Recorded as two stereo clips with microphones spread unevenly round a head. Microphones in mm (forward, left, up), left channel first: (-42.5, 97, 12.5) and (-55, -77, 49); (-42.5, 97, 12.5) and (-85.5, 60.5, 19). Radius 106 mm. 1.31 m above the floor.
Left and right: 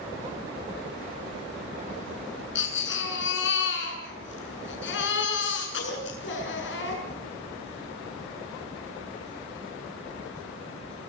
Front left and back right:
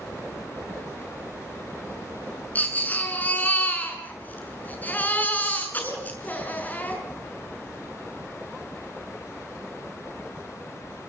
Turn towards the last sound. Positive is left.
turn(degrees=100)